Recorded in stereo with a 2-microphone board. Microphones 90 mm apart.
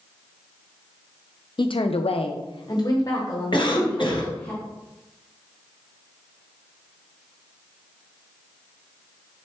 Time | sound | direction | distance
1.6 | a woman speaking | 55° left (ahead or behind) | 0.5 m
3.5 | a cough | 55° left (ahead or behind) | 0.9 m